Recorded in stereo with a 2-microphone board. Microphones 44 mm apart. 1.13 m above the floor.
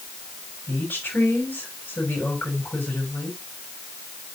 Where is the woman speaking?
40° left (ahead or behind), 8 m.